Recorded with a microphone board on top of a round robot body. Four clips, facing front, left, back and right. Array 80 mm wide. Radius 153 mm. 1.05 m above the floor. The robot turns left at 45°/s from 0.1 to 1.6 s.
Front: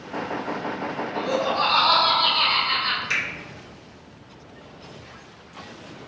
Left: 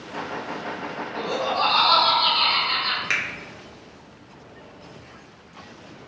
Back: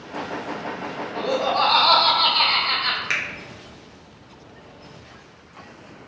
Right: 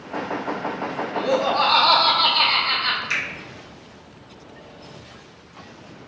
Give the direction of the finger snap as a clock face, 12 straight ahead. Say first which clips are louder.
Even, back 1 dB; 7 o'clock.